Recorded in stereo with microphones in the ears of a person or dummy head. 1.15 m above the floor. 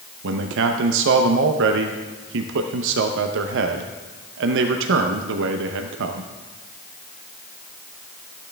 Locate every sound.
0.2 s a man speaking: 75° right (ahead or behind), 0.8 m